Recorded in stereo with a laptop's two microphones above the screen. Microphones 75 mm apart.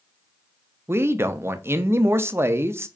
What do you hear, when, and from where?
0.9 s a man speaking: 30° right (ahead or behind), 0.5 m